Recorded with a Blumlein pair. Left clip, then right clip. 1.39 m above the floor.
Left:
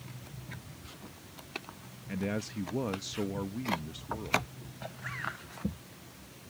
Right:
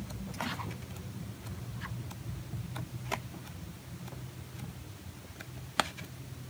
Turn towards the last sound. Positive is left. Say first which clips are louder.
# left 11 dB
turn(degrees=45)